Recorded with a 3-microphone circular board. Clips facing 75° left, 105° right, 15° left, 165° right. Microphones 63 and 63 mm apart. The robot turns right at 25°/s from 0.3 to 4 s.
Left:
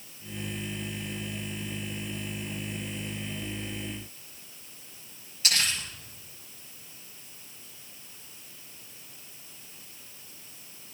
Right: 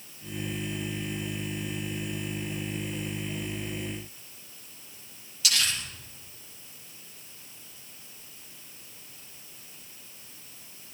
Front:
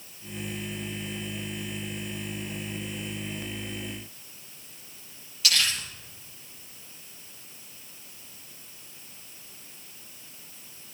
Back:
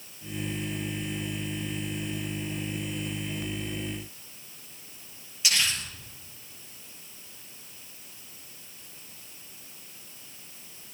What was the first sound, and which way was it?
Crumpling, 125° left.